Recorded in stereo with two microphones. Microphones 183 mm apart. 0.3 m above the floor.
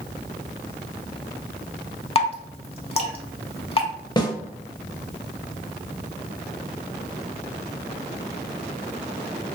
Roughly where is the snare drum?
Left.